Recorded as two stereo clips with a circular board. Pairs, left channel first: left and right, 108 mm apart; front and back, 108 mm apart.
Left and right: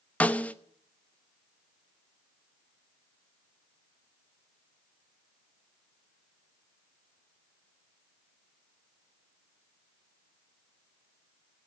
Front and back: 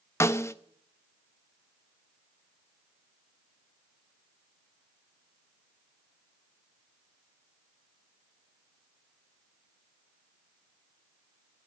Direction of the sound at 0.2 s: 25° left.